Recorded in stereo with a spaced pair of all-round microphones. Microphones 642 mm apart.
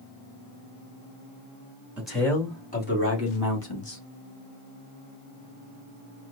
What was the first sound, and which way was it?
A man speaking, centre (ahead or behind).